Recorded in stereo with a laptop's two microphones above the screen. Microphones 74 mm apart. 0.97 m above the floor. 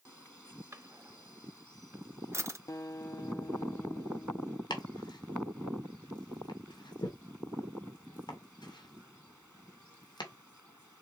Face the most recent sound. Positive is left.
turn(degrees=90)